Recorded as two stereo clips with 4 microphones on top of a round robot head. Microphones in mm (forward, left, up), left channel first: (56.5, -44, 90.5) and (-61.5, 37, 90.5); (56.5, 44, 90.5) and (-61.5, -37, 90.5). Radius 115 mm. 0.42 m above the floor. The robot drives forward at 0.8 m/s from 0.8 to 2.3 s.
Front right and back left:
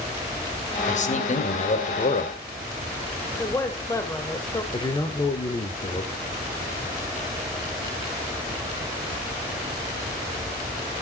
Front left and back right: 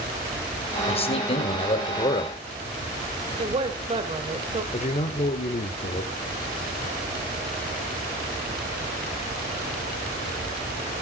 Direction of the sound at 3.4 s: 100° right.